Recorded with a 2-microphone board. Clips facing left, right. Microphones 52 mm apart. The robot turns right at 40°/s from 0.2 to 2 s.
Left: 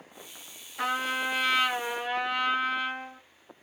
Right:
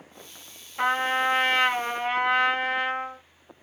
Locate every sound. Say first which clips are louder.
0.8 s a trumpet: right 5 dB; 145° right, 1.6 m; by 3.2 s 100° right, 1.6 m